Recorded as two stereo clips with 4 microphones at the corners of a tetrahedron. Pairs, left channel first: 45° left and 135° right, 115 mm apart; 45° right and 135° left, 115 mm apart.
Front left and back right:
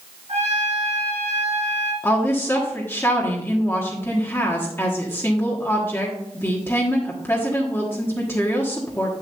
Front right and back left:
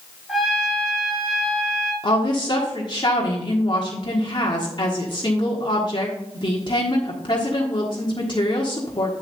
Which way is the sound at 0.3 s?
140° right.